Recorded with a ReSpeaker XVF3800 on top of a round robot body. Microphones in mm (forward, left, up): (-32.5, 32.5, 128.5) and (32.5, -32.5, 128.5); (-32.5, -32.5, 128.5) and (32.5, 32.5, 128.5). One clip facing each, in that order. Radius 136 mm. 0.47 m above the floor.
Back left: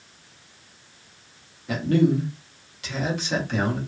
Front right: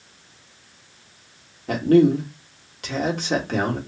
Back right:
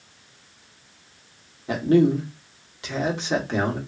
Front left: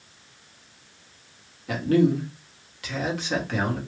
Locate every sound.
1.7 s a man speaking: 70° right, 2 m